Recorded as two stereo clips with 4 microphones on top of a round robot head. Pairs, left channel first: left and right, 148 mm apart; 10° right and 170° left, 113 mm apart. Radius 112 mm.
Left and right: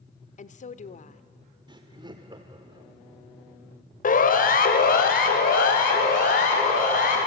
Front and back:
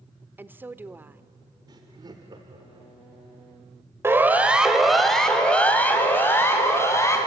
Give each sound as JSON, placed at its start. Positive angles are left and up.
{"t": 0.4, "sound": "a woman speaking", "azimuth_deg": 100, "distance_m": 1.1}
{"t": 1.7, "sound": "laughter", "azimuth_deg": -140, "distance_m": 1.2}
{"t": 4.0, "sound": "a siren", "azimuth_deg": 105, "distance_m": 2.5}